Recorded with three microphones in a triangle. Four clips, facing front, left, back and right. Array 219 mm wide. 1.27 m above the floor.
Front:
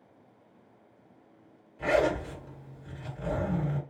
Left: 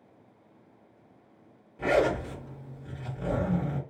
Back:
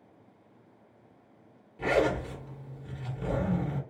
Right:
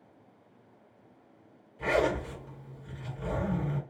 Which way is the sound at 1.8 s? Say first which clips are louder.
Left 3 dB, front 1 dB; 135° left.